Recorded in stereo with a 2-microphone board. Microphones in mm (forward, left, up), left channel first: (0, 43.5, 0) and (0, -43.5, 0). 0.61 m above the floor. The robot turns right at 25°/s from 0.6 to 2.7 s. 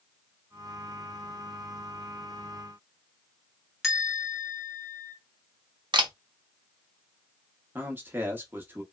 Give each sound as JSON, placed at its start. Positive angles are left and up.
{"t": 3.8, "sound": "a bell", "side_deg": 0, "distance_m": 1.4}
{"t": 5.9, "sound": "a camera shutter", "side_deg": -70, "distance_m": 0.6}
{"t": 7.8, "sound": "a man speaking", "side_deg": -25, "distance_m": 0.8}